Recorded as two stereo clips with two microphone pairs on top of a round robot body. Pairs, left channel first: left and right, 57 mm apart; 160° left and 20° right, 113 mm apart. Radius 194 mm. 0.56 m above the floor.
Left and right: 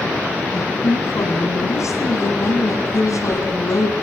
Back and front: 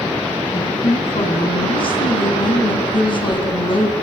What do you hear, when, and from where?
0.5 s a woman speaking: 115° left, 7.5 m